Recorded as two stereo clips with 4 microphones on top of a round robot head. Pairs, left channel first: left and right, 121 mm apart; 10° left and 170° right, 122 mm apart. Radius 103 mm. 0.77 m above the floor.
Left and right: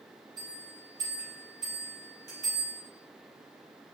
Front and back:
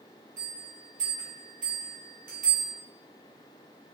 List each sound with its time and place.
0.4 s a bell: 155° right, 1.6 m